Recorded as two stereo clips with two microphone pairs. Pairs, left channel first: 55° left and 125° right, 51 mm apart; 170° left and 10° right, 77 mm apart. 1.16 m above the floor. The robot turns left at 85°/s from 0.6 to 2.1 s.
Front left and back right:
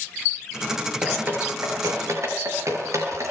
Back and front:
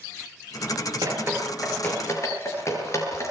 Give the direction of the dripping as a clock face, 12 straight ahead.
2 o'clock.